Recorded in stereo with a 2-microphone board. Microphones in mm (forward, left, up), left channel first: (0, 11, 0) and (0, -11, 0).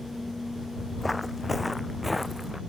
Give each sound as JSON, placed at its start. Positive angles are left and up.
{"t": 1.0, "sound": "footsteps", "side_deg": 0}